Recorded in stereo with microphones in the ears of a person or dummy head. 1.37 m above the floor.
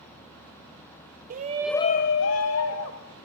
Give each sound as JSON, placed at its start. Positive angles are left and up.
{"t": 1.3, "sound": "a shout", "side_deg": -45, "distance_m": 0.8}